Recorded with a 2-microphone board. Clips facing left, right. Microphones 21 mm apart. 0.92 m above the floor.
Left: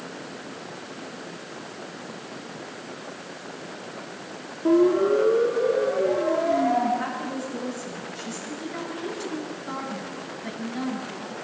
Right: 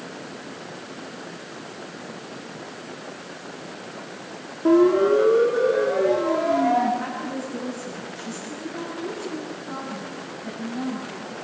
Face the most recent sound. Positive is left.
turn(degrees=70)  # may be behind; listen again after turning